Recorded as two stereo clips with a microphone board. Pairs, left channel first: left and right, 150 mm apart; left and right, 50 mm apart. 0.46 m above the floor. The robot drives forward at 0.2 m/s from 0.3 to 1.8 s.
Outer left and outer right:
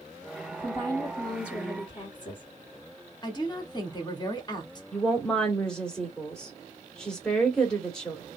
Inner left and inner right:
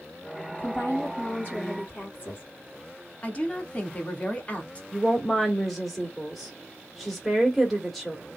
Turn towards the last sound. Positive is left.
turn(degrees=5)  # may be behind; listen again after turning